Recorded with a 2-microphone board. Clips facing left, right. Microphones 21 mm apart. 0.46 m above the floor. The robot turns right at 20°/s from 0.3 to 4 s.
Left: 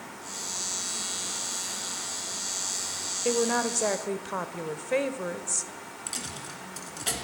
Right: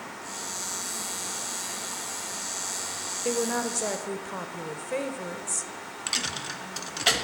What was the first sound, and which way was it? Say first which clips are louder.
A woman speaking: left 2 dB; 10° left (ahead or behind).